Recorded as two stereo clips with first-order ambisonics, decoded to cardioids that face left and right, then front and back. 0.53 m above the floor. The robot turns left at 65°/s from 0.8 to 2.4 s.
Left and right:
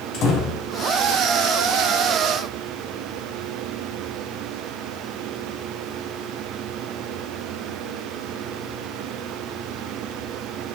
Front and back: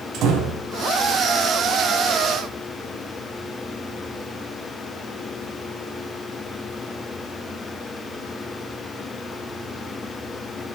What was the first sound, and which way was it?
A door slam, 130° left.